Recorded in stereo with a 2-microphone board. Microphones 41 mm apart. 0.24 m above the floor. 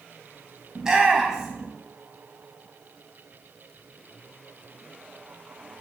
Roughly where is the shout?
Centre.